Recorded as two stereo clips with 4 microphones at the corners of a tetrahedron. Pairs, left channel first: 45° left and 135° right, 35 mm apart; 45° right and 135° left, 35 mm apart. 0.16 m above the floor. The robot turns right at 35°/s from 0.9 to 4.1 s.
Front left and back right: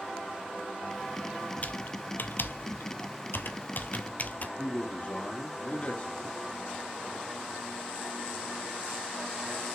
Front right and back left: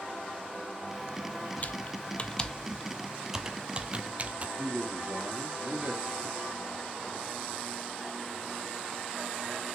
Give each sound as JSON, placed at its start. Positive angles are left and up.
{"t": 1.6, "sound": "typing on a keyboard", "azimuth_deg": 0, "distance_m": 0.7}
{"t": 4.6, "sound": "a man speaking", "azimuth_deg": 90, "distance_m": 2.5}